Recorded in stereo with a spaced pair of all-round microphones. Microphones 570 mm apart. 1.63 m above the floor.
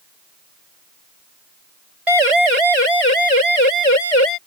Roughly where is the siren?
Right.